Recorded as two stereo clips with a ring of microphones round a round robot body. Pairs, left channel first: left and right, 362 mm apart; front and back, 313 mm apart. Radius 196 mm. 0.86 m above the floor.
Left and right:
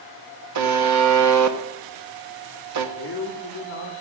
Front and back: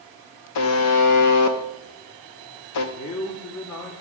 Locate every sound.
0.6 s a buzzer: 45° right, 1.0 m
3.0 s a man speaking: 35° left, 2.0 m